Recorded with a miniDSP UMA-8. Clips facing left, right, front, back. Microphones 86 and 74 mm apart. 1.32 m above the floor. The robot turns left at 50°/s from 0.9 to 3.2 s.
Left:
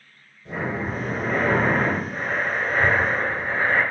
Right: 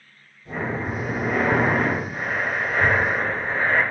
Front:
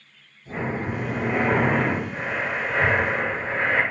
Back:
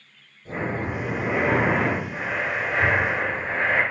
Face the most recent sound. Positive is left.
turn(degrees=35)